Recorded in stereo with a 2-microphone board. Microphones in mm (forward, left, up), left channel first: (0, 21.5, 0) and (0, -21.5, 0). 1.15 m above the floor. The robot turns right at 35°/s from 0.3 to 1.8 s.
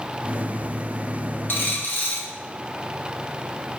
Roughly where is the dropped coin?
Left.